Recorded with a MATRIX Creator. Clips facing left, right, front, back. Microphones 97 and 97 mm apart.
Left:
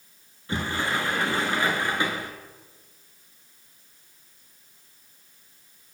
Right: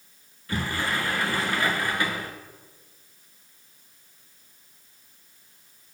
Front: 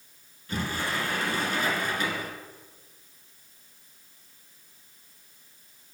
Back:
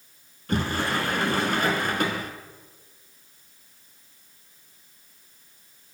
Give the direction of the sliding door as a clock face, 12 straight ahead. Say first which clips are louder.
Left 1 dB, back 5 dB; 7 o'clock.